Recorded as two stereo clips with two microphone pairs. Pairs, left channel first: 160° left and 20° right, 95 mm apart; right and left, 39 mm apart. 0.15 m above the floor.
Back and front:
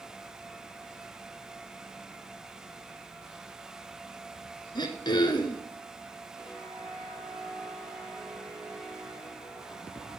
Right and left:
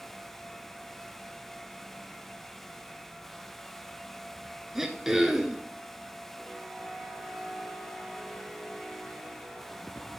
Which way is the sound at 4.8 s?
170° left.